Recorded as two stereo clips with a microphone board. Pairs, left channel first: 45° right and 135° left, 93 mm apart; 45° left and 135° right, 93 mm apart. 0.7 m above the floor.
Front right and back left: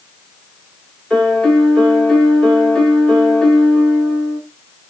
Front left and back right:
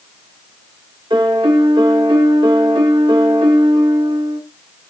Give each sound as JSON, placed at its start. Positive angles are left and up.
{"t": 1.1, "sound": "a piano", "azimuth_deg": -125, "distance_m": 1.5}